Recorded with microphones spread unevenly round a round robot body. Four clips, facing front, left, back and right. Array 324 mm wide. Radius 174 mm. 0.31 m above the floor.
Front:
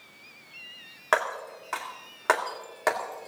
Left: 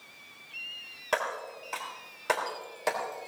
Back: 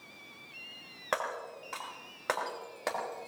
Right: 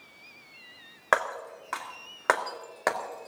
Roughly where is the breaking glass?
Ahead right.